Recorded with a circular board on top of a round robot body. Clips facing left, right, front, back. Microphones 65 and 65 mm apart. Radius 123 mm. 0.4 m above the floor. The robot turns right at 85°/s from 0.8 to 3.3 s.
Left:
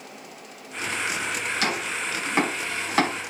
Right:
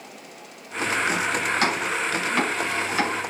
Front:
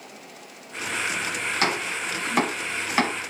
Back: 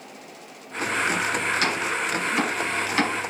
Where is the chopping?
50° right, 5 m; by 3.1 s 80° left, 5 m.